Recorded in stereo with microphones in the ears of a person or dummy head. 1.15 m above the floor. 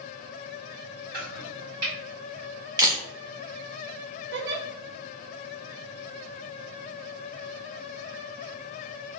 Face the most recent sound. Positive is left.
turn(degrees=-55)  # may be behind; listen again after turning